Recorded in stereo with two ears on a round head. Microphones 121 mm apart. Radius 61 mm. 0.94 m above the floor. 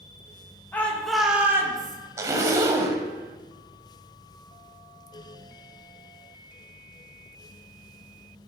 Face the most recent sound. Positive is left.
turn(degrees=-25)  # may be behind; listen again after turning